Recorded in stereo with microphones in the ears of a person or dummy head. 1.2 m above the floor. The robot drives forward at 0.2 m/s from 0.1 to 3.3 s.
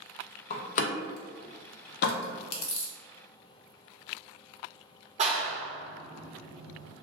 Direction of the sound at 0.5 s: 45° left (ahead or behind).